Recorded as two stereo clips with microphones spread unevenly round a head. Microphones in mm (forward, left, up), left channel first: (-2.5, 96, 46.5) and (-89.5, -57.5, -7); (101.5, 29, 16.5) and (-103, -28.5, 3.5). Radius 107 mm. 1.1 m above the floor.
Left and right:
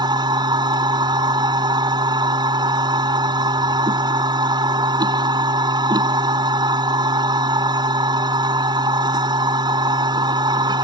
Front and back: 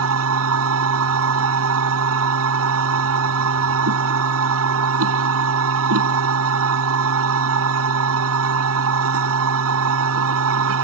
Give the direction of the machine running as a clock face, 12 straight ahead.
6 o'clock.